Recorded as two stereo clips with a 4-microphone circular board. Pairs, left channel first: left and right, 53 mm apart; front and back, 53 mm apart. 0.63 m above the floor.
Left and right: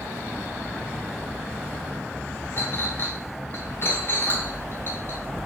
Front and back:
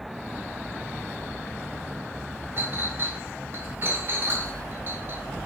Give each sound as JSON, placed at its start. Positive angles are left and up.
{"t": 2.6, "sound": "a clink", "azimuth_deg": 135, "distance_m": 0.9}